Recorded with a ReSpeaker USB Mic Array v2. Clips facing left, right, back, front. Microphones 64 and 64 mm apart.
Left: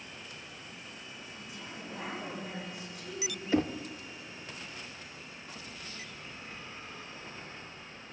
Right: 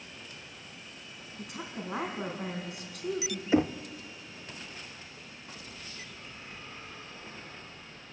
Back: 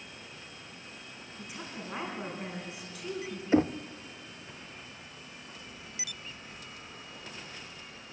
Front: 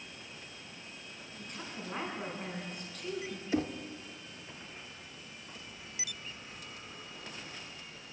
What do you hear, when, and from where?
1.4 s a woman speaking: 100° right, 5 m
3.5 s knocking: 150° right, 0.6 m